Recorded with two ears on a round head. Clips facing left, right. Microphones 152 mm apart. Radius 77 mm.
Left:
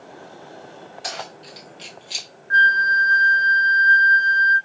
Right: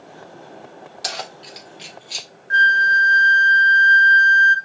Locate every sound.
1.0 s keys jangling: 40° right (ahead or behind), 0.9 m; by 2.3 s 10° left (ahead or behind), 0.8 m
2.5 s a flute: 30° right (ahead or behind), 0.6 m